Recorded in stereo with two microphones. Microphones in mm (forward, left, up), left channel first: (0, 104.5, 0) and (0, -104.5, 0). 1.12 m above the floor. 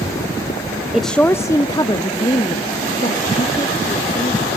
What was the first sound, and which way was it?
A woman speaking, 5° right (ahead or behind).